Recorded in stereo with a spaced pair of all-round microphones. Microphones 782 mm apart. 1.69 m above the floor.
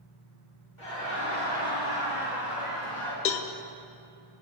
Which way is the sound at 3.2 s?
75° left (ahead or behind).